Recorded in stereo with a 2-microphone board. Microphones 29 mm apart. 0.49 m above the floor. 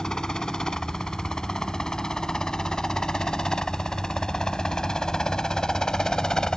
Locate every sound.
0.0 s a helicopter: 25° left (ahead or behind)